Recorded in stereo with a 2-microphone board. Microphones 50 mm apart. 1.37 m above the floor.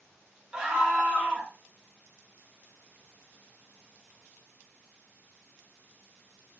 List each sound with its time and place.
0.5 s a scream: 20° right (ahead or behind), 1.0 m